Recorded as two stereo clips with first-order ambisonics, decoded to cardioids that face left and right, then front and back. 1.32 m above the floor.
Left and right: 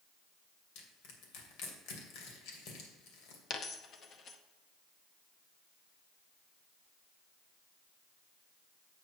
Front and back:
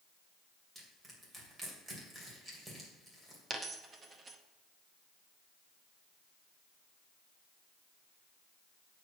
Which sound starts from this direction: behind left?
A dropped coin, at 3.5 s.